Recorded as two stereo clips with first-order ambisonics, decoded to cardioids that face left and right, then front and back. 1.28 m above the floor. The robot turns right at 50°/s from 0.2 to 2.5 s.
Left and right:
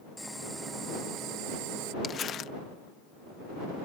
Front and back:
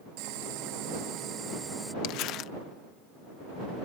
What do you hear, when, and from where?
0.2 s boiling: straight behind; by 1.9 s 95° right
2.0 s crumpling: 20° left; by 2.5 s 45° left